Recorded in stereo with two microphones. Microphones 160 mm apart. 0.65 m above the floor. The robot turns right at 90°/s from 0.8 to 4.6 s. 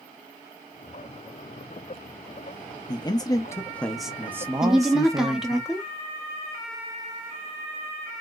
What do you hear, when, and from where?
2.9 s a man speaking: 25° left (ahead or behind), 0.5 m; by 5.6 s 20° right (ahead or behind), 0.5 m
4.6 s a woman speaking: 5° right (ahead or behind), 0.9 m